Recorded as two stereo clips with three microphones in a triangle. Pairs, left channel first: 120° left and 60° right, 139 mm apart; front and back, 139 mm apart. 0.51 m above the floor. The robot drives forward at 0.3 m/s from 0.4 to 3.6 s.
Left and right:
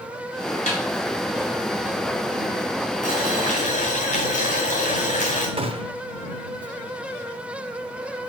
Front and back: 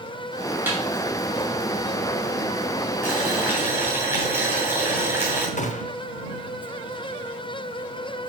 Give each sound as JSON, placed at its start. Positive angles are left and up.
{"t": 0.7, "sound": "a snare drum", "azimuth_deg": 105, "distance_m": 2.0}
{"t": 3.0, "sound": "boiling", "azimuth_deg": 105, "distance_m": 2.5}
{"t": 5.6, "sound": "a gunshot", "azimuth_deg": -15, "distance_m": 0.6}